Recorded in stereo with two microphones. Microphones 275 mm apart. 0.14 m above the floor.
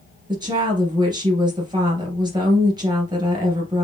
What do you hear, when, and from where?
0.3 s a woman speaking: 15° right (ahead or behind), 2.5 m